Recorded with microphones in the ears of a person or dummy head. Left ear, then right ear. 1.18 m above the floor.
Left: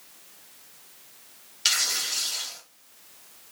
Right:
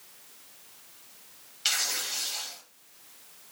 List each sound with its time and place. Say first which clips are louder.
1.6 s tearing paper: left 4 dB; 15° left (ahead or behind), 0.7 m